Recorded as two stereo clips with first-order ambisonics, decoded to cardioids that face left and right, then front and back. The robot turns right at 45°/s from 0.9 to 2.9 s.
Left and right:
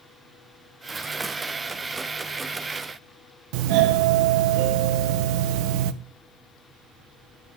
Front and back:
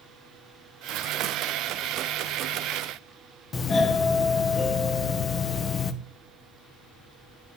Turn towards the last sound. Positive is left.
turn(degrees=-70)